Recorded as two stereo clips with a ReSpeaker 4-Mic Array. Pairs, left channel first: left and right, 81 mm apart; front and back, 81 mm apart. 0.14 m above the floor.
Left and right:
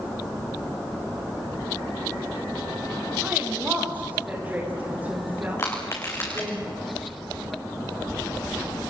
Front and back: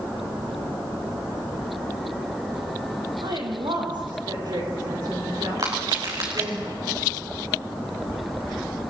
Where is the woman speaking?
160° right, 8 m; by 6.6 s 155° right, 11 m.